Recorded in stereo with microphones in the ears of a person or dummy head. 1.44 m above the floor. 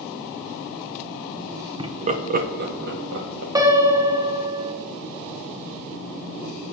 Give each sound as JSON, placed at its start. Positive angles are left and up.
{"t": 1.8, "sound": "laughter", "side_deg": -30, "distance_m": 0.8}
{"t": 3.5, "sound": "a piano", "side_deg": -25, "distance_m": 1.0}